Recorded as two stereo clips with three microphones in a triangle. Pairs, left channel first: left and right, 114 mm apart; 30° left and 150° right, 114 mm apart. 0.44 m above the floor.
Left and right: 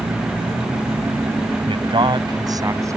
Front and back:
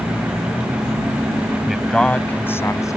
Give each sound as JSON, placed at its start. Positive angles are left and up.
{"t": 1.7, "sound": "a man speaking", "azimuth_deg": -65}